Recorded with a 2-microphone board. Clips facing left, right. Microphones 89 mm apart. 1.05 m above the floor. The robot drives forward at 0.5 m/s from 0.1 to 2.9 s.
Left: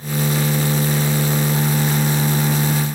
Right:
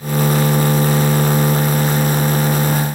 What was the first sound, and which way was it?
Only background noise.